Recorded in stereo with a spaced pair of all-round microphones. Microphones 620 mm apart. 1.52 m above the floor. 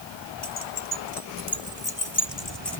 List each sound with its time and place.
0.4 s keys jangling: 65° left (ahead or behind); by 2.8 s 75° left (ahead or behind)